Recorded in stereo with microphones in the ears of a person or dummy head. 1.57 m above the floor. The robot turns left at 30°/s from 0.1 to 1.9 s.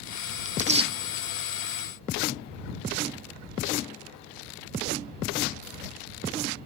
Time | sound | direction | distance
0.5 | tearing paper | 35° right (ahead or behind) | ?